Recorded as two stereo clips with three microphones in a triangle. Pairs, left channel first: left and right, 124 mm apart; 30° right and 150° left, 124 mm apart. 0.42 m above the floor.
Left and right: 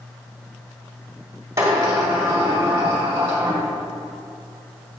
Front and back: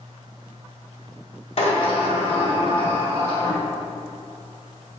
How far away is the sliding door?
About 1.7 m.